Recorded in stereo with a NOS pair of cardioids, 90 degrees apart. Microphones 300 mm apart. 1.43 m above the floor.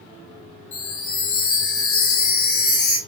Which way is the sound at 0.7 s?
70° left.